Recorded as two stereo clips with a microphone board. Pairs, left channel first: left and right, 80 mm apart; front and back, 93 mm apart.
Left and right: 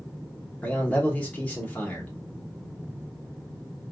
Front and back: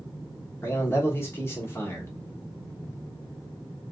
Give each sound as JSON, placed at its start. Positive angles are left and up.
{"t": 0.6, "sound": "a man speaking", "azimuth_deg": 35, "distance_m": 1.1}